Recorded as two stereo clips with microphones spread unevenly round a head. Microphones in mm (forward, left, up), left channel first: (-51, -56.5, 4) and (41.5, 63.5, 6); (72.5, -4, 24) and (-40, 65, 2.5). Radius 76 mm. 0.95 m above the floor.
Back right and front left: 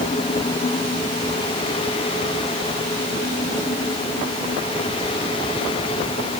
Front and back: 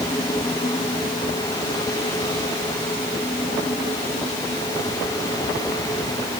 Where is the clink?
I don't hear a clink.